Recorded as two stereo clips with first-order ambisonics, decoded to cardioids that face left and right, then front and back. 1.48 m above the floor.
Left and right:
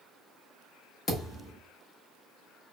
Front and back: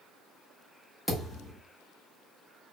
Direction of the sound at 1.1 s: 95° left.